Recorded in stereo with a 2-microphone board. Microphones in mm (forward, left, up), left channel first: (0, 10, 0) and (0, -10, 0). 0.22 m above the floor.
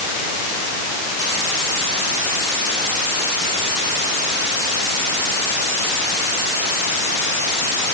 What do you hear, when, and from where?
Only background noise.